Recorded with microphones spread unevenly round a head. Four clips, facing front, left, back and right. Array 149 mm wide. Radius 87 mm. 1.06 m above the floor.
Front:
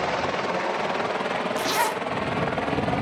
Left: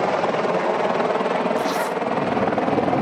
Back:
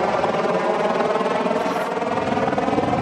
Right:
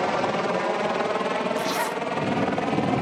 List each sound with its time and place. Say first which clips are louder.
0.0 s a helicopter: left 4 dB, back 6 dB; 145° left; by 3.0 s 115° left
1.6 s a zipper: left 4 dB, back 3 dB; 40° left